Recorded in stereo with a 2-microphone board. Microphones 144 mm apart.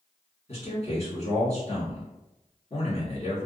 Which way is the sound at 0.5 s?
50° left (ahead or behind).